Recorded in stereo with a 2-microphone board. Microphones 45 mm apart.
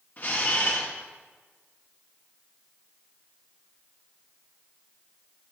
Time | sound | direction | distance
0.2 | a camera shutter | 45° left (ahead or behind) | 2.0 m